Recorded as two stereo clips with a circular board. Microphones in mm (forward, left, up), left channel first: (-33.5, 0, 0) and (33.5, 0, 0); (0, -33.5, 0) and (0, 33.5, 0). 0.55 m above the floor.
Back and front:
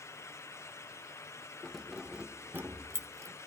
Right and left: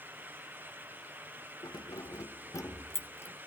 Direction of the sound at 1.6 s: 100° right.